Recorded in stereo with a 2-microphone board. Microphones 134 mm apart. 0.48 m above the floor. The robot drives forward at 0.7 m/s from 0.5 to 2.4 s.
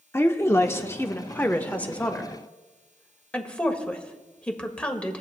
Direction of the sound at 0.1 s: 20° left (ahead or behind).